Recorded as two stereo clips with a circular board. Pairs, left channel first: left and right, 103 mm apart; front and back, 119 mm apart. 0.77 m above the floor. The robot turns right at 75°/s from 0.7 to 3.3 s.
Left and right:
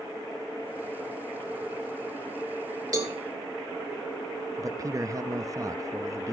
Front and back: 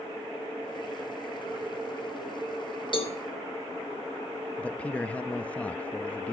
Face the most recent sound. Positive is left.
turn(degrees=-70)